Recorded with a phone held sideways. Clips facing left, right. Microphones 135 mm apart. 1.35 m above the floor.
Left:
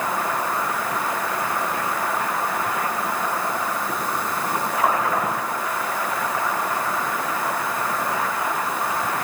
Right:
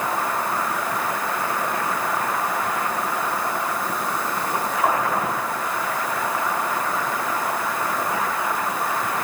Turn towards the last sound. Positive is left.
No sound to turn to.